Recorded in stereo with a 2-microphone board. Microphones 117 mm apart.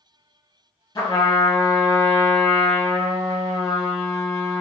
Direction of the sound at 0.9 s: 40° left (ahead or behind).